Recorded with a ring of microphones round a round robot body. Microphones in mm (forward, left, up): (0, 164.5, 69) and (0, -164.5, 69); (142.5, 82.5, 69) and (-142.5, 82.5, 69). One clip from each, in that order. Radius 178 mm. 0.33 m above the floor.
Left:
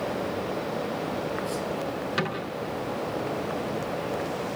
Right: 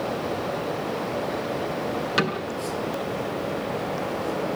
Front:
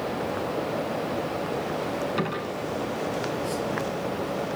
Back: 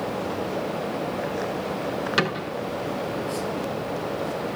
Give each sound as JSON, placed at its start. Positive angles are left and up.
{"t": 2.2, "sound": "a cupboard door", "azimuth_deg": -160, "distance_m": 5.5}